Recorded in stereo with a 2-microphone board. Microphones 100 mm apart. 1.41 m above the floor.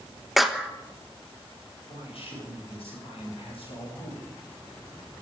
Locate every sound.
0.4 s a clap: centre (ahead or behind), 1.2 m
1.9 s a man speaking: 65° left (ahead or behind), 8.5 m